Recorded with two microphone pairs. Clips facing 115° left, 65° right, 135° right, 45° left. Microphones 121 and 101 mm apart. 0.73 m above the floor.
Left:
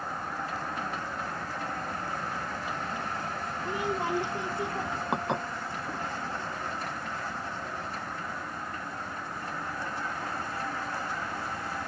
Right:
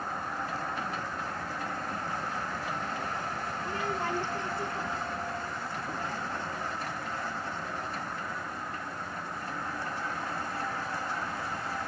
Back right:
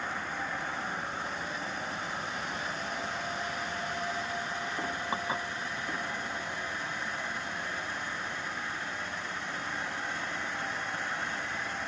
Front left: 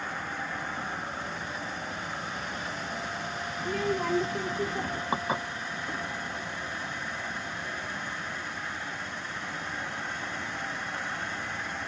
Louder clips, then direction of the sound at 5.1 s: Left 6 dB, front left 5 dB; 120° left.